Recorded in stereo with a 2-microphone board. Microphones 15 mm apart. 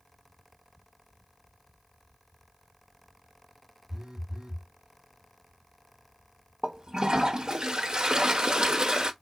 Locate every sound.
3.9 s a phone buzzing: 70° right (ahead or behind), 2.5 m
6.6 s a toilet flushing: 60° right (ahead or behind), 1.2 m